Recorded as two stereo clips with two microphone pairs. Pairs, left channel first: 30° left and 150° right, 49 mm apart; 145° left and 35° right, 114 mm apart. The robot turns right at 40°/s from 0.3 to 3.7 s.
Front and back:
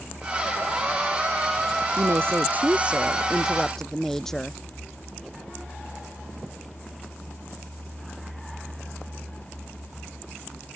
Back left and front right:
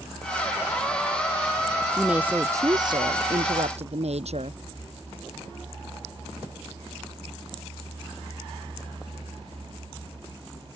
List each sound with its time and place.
2.0 s a woman speaking: 120° right; by 4.6 s 50° right